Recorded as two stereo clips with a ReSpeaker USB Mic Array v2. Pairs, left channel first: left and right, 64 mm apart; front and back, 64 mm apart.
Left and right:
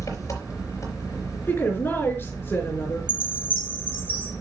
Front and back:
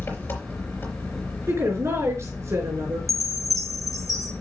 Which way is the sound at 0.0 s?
55° left.